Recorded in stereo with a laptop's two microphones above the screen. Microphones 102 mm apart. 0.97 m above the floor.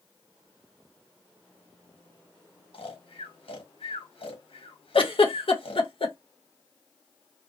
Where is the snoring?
60° left (ahead or behind), 1.1 m.